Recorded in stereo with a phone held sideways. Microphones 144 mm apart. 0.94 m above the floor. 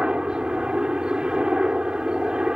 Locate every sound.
0.0 s a helicopter: 5° right (ahead or behind)